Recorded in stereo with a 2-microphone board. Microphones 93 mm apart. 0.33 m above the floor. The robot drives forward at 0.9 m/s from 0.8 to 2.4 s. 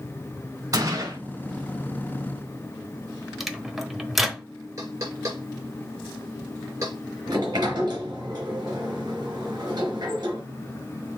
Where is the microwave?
Centre (ahead or behind), 0.9 m.